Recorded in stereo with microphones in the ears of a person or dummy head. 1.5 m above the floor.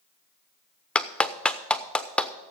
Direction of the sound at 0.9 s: 10° left (ahead or behind).